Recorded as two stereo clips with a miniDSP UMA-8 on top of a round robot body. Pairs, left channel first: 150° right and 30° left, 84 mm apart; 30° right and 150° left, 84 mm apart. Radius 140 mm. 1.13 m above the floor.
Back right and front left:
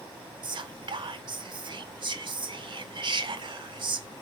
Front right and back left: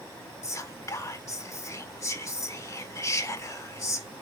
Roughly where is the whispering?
Ahead.